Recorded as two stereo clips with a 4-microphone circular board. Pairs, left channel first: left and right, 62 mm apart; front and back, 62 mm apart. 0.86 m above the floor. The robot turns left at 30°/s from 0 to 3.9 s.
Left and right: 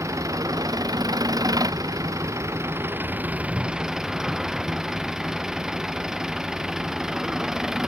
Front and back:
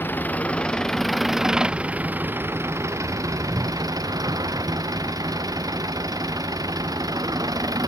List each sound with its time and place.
0.0 s an engine running: 55° right; by 7.9 s 175° right